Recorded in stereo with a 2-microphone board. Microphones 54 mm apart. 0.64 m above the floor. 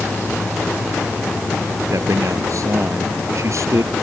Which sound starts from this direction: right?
A man speaking, at 1.9 s.